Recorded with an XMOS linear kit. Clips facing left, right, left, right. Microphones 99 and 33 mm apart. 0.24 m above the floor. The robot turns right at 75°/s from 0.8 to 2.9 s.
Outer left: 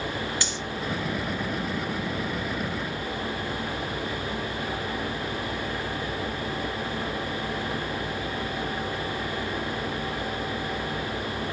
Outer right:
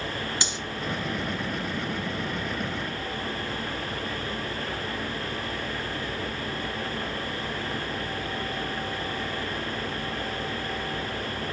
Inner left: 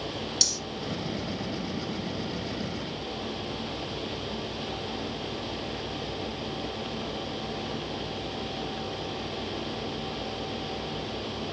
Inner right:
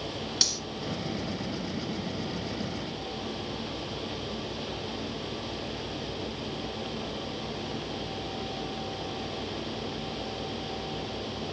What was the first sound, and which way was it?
Cutlery clinking, 20° right (ahead or behind).